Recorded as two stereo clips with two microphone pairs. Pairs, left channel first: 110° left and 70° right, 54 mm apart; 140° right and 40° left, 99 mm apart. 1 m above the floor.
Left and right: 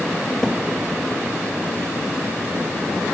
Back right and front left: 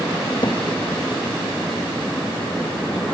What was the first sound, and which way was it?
A cupboard door, 170° right.